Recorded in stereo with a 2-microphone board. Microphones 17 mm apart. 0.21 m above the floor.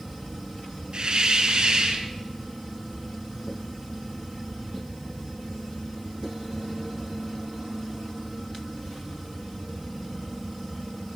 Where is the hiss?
60° right (ahead or behind), 2.5 m.